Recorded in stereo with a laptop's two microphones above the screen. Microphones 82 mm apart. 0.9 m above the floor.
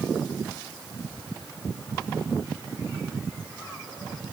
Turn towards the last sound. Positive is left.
No sound to turn to.